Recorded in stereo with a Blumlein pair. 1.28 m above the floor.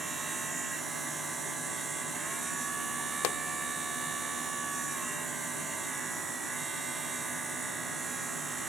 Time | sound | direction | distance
0.0 | a machine running | 10° right | ?
3.2 | a pop | 40° left | ?